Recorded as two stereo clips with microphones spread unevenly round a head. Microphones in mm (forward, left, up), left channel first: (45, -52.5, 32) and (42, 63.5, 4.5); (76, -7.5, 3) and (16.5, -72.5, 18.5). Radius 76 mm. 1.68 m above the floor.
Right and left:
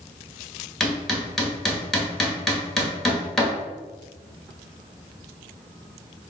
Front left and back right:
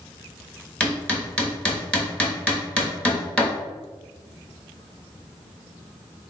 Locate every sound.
0.8 s hammering: 35° right, 1.1 m